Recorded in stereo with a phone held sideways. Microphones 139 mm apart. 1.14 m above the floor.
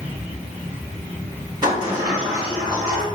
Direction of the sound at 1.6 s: 30° right (ahead or behind).